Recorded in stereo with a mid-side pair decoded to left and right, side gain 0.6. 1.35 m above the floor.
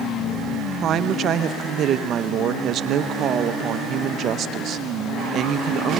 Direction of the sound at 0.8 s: 50° right.